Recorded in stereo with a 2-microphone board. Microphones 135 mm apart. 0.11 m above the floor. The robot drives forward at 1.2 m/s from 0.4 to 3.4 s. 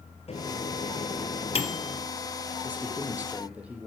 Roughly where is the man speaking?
Centre.